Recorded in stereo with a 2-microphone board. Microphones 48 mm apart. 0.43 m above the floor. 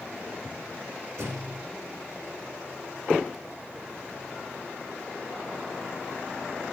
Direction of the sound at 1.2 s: 80° right.